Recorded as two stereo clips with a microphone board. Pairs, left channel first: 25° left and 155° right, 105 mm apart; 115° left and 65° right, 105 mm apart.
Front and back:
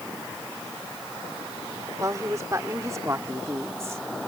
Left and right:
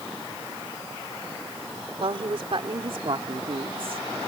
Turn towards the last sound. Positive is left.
turn(degrees=-95)